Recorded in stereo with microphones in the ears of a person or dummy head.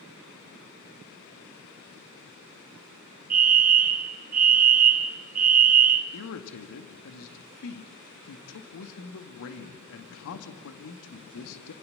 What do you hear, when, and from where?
3.3 s a fire alarm: 40° right (ahead or behind), 1.7 m
6.1 s a man speaking: 65° left (ahead or behind), 1.9 m